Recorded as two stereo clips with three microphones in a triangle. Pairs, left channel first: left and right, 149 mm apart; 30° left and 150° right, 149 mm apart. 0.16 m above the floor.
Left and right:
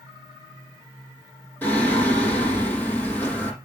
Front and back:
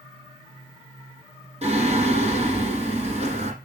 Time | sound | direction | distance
1.6 | singing | 170° left | 7 m